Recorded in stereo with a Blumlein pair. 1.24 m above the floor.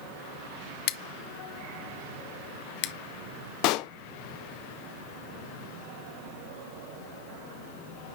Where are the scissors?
45° left, 0.6 m.